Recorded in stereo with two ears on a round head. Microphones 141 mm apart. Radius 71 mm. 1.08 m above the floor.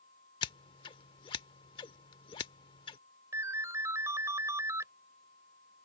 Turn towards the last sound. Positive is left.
turn(degrees=-20)  # may be behind; listen again after turning